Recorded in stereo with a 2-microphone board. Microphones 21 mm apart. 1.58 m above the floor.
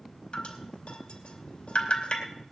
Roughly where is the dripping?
Left.